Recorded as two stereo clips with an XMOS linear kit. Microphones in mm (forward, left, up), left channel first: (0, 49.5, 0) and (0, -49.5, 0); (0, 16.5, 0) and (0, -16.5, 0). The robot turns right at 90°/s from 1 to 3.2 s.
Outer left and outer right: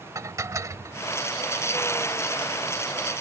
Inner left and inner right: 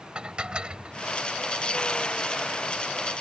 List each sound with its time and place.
0.1 s dishes clattering: 35° right (ahead or behind)